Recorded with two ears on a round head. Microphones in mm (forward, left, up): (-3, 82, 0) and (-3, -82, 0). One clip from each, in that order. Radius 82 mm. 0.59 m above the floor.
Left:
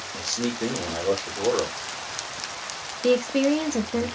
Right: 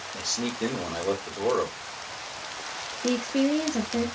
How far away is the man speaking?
About 1.9 m.